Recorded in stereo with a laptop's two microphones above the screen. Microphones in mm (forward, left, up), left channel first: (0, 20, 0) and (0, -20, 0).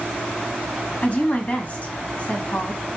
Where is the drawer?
I don't hear a drawer.